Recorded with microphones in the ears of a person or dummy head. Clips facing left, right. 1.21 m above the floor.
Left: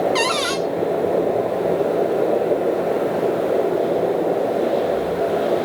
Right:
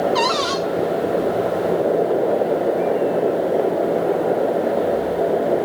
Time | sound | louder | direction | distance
0.1 | a cupboard door | right 1 dB | 25° left (ahead or behind) | 0.7 m